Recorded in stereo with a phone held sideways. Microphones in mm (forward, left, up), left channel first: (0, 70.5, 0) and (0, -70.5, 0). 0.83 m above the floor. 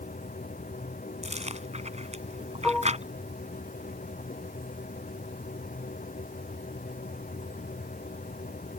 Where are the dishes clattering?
5° left (ahead or behind).